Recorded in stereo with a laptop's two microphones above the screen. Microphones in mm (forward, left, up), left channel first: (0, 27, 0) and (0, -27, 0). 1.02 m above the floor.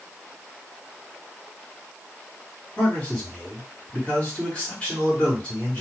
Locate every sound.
2.8 s a man speaking: 20° left (ahead or behind), 1.6 m